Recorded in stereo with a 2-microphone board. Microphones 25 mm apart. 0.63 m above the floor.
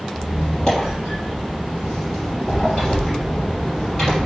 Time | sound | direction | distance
0.1 | a squeak | 20° left (ahead or behind) | 3.5 m